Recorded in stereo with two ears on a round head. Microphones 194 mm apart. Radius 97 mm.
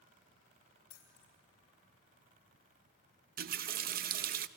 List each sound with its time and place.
0.9 s keys jangling: 80° left, 4.5 m
3.4 s a running tap: 45° right (ahead or behind), 0.6 m